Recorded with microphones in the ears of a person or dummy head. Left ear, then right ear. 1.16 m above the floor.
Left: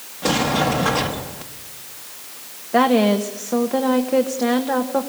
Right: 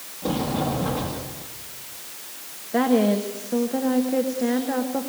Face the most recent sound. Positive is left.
turn(degrees=30)  # may be behind; listen again after turning